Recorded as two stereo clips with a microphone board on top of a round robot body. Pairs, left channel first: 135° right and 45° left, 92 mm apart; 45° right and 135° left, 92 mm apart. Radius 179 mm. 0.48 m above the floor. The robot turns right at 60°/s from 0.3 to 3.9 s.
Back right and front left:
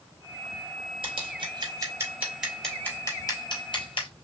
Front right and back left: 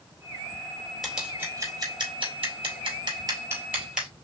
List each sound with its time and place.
1.0 s scissors: 45° left, 3 m; by 4.1 s 145° right, 3 m